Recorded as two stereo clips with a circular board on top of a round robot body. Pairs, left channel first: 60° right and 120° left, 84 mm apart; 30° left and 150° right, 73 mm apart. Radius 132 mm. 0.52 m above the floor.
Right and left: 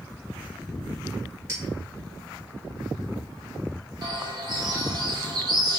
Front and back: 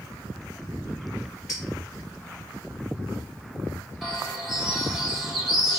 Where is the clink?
65° left, 1.9 m.